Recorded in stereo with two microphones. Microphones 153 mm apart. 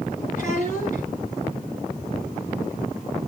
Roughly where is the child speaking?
Left.